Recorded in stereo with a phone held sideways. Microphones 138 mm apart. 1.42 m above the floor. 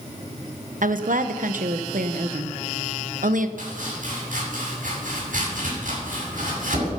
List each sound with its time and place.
0.8 s a woman speaking: 75° right (ahead or behind), 1.0 m
3.6 s chopping: 75° right (ahead or behind), 7.5 m